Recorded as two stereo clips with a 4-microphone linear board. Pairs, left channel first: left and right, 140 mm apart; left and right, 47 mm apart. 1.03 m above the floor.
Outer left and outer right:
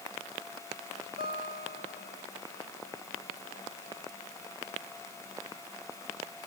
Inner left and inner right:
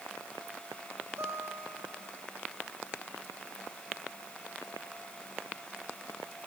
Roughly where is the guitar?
Right.